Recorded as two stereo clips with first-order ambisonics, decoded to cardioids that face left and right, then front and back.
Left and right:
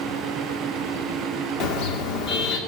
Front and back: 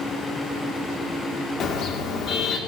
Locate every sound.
1.6 s a car horn: 55° left, 2.5 m